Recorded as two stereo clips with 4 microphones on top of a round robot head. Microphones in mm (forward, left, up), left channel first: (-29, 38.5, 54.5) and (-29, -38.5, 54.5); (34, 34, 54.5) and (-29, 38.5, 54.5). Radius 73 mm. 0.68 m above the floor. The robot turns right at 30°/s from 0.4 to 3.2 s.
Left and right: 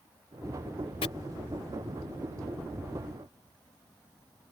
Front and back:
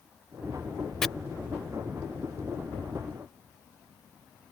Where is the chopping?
80° left.